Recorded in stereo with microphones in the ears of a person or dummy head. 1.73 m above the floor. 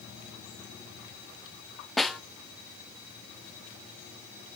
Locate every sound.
2.0 s a snare drum: centre (ahead or behind), 0.7 m